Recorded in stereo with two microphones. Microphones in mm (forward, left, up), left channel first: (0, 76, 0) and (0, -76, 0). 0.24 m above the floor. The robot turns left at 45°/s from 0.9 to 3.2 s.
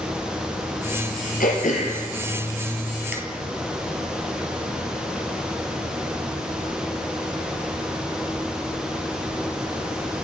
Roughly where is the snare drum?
I don't hear a snare drum.